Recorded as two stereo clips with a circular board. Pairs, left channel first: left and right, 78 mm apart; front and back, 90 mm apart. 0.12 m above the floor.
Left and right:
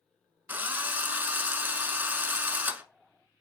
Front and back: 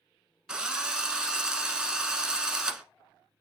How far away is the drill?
About 0.9 m.